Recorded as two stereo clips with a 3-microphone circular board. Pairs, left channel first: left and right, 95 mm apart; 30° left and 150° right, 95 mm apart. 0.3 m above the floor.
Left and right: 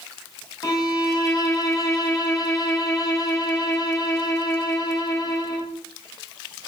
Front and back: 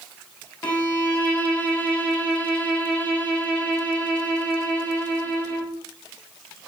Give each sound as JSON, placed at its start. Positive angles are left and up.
{"t": 0.6, "sound": "a violin", "azimuth_deg": 95, "distance_m": 0.7}